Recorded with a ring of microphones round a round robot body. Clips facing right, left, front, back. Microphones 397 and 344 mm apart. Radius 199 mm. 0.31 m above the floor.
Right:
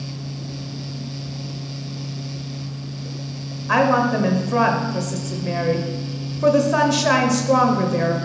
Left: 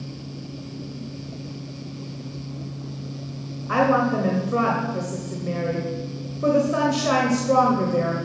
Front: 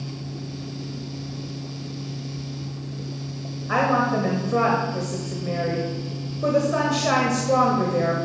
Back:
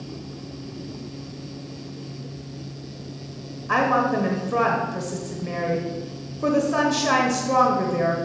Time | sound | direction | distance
3.7 | a woman speaking | 120° right | 0.9 m